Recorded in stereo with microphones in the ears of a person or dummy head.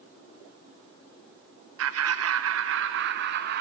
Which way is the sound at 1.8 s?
65° right (ahead or behind).